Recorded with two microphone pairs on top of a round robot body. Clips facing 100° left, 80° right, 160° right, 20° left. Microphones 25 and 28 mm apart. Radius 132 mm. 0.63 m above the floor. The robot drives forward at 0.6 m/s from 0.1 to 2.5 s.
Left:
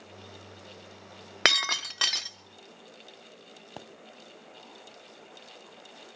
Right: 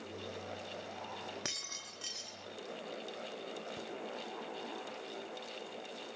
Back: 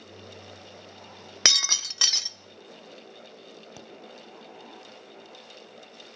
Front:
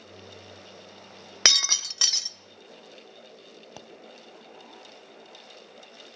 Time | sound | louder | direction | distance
1.4 | breaking glass | left 22 dB, front 1 dB | 100° left | 0.9 m
3.8 | a pop | even, front 4 dB | 95° left | 2 m